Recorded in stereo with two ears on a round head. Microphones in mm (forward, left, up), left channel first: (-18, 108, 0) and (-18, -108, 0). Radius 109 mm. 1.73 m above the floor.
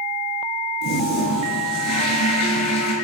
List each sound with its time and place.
0.8 s a toilet flushing: 75° left (ahead or behind), 7.5 m